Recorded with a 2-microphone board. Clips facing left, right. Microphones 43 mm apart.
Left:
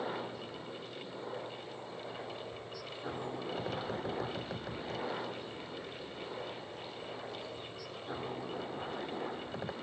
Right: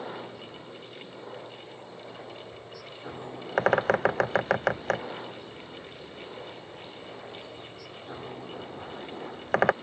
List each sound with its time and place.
0.0 s a helicopter: 5° right (ahead or behind)
3.6 s a bird: 70° right (ahead or behind)